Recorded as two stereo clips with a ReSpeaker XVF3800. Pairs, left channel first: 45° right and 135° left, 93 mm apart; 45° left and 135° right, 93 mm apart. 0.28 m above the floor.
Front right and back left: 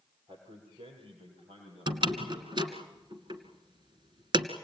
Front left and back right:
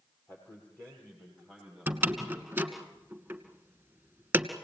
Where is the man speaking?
115° left, 6.5 m; by 2.9 s 135° left, 9 m.